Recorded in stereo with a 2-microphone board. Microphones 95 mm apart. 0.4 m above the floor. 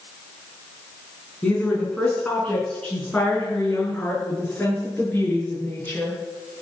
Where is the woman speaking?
10° left (ahead or behind), 5 m; by 6.2 s 15° left (ahead or behind), 9 m.